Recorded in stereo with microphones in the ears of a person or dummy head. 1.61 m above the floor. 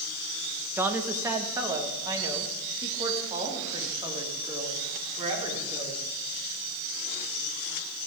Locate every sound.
0.8 s a woman speaking: 10° right (ahead or behind), 1.4 m; by 6.0 s 30° right (ahead or behind), 4.5 m